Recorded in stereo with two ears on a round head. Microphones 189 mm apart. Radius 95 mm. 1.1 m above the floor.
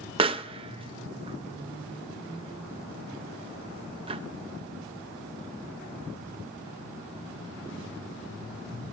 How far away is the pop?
About 0.6 m.